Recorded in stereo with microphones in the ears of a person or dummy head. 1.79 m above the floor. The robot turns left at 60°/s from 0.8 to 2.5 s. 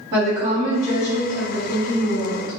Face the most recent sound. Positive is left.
turn(degrees=125)